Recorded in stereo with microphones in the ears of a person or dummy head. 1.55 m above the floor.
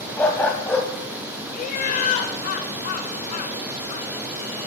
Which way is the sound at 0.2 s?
10° left (ahead or behind).